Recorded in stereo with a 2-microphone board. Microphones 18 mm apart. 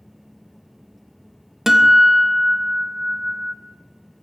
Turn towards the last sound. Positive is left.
turn(degrees=-25)  # may be behind; listen again after turning